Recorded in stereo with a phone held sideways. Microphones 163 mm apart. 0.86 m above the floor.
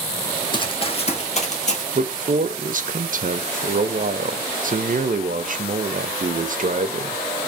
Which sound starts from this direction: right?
A man speaking, at 1.9 s.